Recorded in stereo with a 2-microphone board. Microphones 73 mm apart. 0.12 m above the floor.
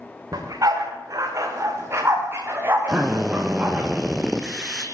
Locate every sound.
0.3 s a dog barking: 55° right (ahead or behind), 8 m; by 3.9 s 20° right (ahead or behind), 9 m
2.9 s a drill: 10° right (ahead or behind), 3.5 m